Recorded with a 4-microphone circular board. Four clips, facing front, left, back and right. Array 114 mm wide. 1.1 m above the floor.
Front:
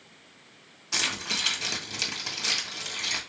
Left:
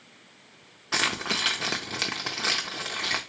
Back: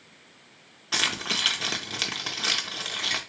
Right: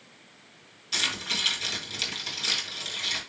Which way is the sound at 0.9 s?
110° left.